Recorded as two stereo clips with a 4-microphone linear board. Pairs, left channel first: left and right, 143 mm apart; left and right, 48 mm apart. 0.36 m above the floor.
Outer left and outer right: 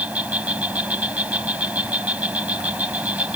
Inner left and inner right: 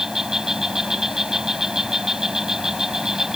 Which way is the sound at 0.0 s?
10° right (ahead or behind).